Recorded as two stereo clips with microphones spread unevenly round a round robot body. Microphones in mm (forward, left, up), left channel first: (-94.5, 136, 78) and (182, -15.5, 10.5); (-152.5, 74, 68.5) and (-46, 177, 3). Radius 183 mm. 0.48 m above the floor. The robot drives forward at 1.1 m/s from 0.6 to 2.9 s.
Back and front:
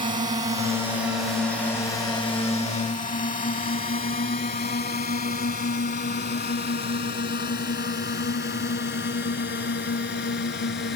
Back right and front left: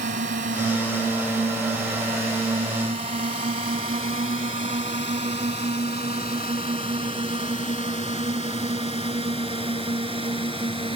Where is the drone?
40° left; by 11.0 s 95° left.